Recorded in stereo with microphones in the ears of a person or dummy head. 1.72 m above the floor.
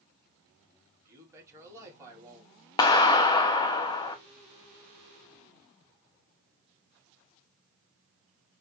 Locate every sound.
1.1 s a man speaking: 15° right (ahead or behind), 3.5 m
2.8 s a clap: 20° left (ahead or behind), 0.6 m